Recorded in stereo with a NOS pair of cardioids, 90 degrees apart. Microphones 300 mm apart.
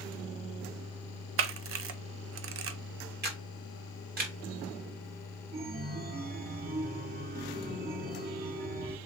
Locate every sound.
1.4 s a camera shutter: 45° right, 0.7 m
3.2 s a camera shutter: 30° right, 1.8 m
5.5 s a chime: 30° right, 1.3 m